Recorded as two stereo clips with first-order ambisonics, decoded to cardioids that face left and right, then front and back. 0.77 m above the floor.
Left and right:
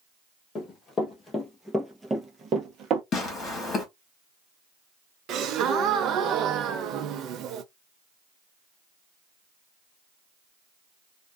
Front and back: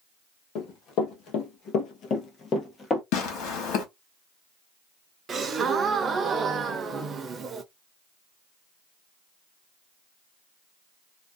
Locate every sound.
0.6 s running footsteps: 35° left, 1.3 m; by 3.0 s 65° right, 0.9 m
3.1 s tearing paper: 30° left, 1.2 m
5.3 s a gasp: 120° right, 0.5 m